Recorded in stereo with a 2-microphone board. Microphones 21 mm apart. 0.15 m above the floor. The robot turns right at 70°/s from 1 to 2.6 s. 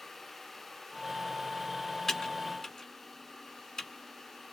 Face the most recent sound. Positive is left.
turn(degrees=25)  # may be behind; listen again after turning